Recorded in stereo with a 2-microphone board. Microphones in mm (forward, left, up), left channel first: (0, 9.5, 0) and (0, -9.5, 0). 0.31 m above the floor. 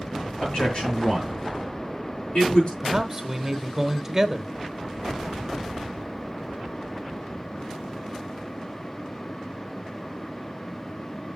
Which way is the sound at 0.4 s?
75° left (ahead or behind).